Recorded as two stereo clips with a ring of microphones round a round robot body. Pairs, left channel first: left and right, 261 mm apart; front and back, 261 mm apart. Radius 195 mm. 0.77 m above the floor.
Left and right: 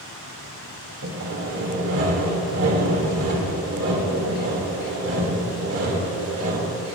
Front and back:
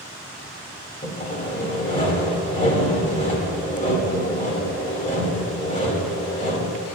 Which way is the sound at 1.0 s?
65° right.